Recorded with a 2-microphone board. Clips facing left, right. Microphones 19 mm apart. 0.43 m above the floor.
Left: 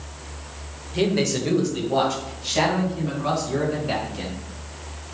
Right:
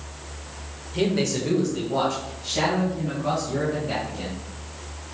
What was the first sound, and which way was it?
A man speaking, 10° left (ahead or behind).